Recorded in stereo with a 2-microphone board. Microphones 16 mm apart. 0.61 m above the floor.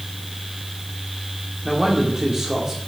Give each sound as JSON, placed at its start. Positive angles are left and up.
{"t": 1.6, "sound": "a man speaking", "side_deg": -45, "distance_m": 1.8}